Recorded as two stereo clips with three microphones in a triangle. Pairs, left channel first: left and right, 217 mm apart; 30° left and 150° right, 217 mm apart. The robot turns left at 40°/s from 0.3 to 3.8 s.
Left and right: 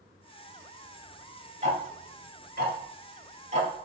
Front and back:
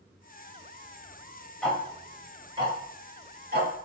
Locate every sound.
1.6 s ticking: 55° right, 1.1 m; by 3.9 s 140° right, 1.1 m